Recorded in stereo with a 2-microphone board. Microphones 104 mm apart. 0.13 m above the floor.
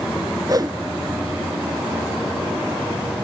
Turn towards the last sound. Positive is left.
turn(degrees=-35)  # may be behind; listen again after turning